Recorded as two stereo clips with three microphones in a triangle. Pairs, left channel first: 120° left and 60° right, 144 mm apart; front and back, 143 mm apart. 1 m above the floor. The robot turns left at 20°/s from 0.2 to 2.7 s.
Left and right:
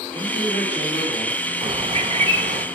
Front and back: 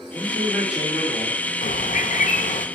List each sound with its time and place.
0.1 s a man speaking: 110° left, 2.5 m; by 1.4 s 85° left, 2.5 m
1.6 s a bird: 5° right, 0.5 m; by 2.6 s 30° right, 0.5 m